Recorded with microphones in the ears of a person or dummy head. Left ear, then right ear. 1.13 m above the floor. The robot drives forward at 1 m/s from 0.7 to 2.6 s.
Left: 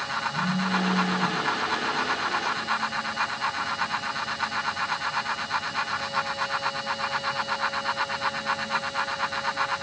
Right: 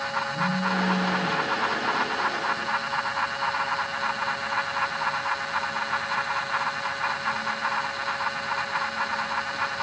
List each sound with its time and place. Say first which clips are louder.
0.3 s a phone buzzing: right 1 dB; centre (ahead or behind), 9.5 m